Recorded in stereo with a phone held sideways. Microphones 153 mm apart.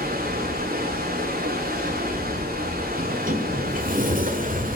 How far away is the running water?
About 4 m.